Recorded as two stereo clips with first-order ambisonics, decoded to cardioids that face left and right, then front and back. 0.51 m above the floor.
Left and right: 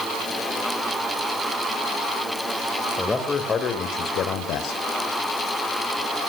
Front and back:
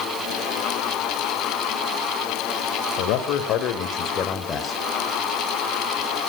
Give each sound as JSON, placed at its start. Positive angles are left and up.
{"t": 3.0, "sound": "a man speaking", "azimuth_deg": 10, "distance_m": 2.5}